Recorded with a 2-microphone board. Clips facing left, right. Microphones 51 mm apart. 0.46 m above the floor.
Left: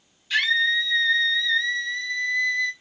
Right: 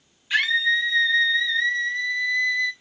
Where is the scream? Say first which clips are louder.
Right 1 dB; 20° right (ahead or behind), 1.4 m.